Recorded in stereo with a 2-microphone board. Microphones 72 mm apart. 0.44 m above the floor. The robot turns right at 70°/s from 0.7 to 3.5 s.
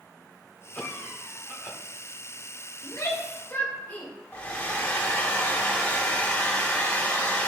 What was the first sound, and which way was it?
A cough, 135° left.